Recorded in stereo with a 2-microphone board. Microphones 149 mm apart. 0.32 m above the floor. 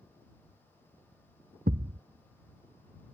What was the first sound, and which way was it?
A thud, 85° right.